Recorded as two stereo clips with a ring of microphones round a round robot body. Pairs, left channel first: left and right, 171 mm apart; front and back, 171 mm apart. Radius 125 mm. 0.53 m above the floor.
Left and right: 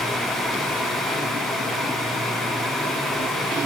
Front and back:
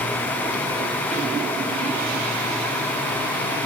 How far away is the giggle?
No giggle in this recording.